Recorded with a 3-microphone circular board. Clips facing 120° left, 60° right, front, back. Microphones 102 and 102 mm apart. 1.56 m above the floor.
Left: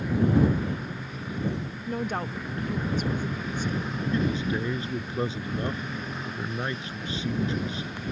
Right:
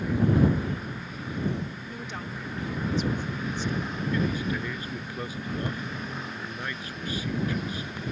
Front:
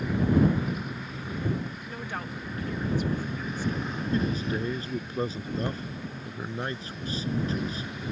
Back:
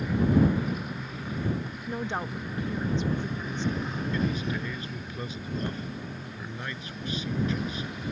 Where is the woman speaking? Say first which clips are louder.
Left 7 dB, back 4 dB; 125° left.